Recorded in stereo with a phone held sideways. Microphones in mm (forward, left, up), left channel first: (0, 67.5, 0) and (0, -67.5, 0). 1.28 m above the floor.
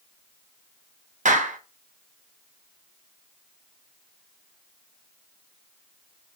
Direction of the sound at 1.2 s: 70° right (ahead or behind).